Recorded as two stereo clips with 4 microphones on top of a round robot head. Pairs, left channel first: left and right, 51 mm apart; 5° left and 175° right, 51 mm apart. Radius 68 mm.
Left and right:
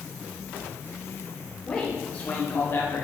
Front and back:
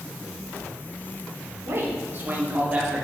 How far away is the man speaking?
About 3 m.